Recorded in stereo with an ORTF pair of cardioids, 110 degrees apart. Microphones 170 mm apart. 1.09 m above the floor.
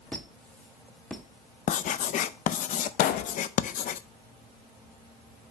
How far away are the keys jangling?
I don't hear keys jangling.